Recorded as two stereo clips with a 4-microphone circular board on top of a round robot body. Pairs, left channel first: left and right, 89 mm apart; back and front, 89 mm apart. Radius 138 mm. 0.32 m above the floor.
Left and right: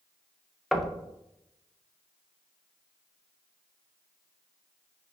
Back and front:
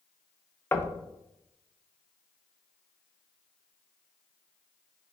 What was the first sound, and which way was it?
Knocking, straight behind.